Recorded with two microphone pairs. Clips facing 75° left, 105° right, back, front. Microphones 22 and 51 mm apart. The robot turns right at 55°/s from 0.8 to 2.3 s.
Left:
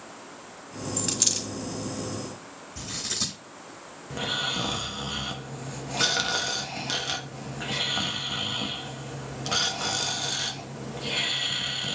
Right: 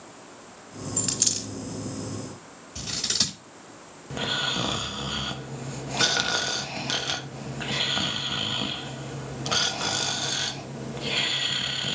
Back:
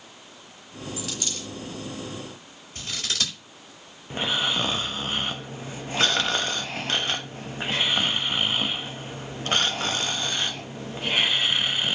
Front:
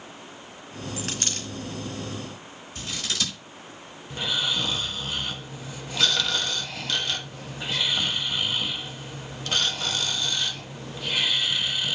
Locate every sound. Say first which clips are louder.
1.0 s a dropped coin: even, front 2 dB; 30° right, 2 m; by 1.5 s straight ahead, 2 m
2.8 s scissors: right 4 dB, back 1 dB; 120° right, 5 m
4.1 s snoring: right 1 dB, back 2 dB; 170° right, 0.9 m